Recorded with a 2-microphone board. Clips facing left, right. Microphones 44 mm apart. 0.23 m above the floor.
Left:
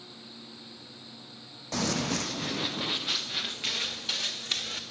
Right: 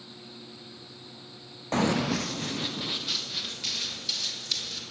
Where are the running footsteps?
30° right (ahead or behind), 0.6 m; by 4.8 s 40° left (ahead or behind), 2 m.